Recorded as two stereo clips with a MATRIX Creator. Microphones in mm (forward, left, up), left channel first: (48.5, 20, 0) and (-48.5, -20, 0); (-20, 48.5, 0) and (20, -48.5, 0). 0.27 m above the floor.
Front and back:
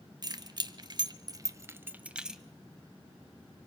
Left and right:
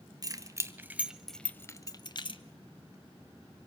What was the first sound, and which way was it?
Keys jangling, 115° right.